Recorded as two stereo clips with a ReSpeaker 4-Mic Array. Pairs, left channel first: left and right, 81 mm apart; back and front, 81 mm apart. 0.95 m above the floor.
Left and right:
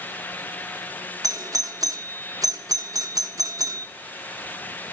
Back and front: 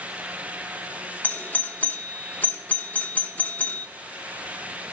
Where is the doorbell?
115° right, 0.9 m.